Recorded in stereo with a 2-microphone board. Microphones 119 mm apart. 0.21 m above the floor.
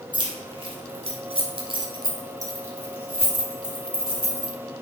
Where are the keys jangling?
40° right (ahead or behind), 1.7 m; by 4.5 s 5° right (ahead or behind), 3 m.